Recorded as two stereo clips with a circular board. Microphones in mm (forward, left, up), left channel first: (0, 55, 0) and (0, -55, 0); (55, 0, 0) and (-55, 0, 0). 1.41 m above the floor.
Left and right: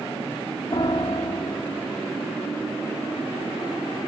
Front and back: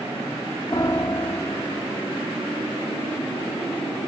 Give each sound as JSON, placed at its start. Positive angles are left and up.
{"t": 0.7, "sound": "a piano", "azimuth_deg": 50, "distance_m": 2.5}